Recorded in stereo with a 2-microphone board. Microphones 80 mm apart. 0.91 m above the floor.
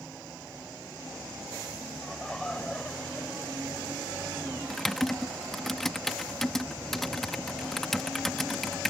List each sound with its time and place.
2.0 s laughter: centre (ahead or behind); by 4.2 s 25° left (ahead or behind)
4.7 s typing on a keyboard: 5° left (ahead or behind)